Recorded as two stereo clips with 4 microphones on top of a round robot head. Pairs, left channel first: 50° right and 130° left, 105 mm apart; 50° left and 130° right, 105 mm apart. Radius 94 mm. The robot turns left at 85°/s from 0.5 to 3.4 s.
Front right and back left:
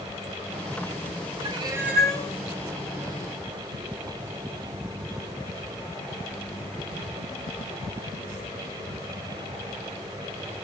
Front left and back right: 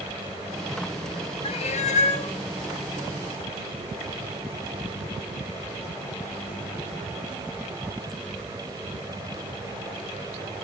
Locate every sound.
1.4 s a cat meowing: 95° left, 1.4 m; by 2.3 s 20° left, 1.4 m